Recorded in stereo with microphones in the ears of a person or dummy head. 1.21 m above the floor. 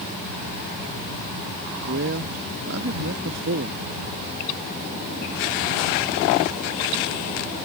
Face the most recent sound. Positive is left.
turn(degrees=-60)  # may be behind; listen again after turning